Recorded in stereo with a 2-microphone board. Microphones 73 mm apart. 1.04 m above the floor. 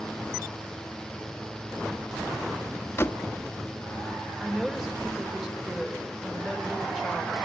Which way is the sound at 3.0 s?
35° left (ahead or behind).